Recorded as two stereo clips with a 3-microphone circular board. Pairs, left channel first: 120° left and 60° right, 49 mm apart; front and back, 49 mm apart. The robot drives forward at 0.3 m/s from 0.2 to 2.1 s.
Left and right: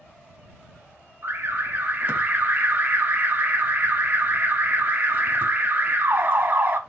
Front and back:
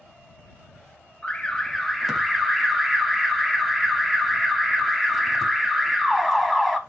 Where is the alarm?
65° right, 0.6 m; by 6.8 s 100° right, 0.6 m.